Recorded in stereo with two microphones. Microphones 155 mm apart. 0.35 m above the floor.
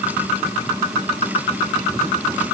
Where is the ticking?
No ticking in this recording.